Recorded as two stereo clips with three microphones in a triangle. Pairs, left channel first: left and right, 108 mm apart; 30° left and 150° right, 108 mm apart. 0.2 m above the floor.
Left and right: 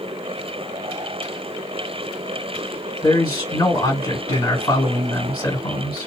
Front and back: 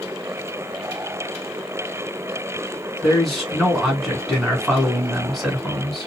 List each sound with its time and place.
3.0 s a man speaking: 120° left, 1.8 m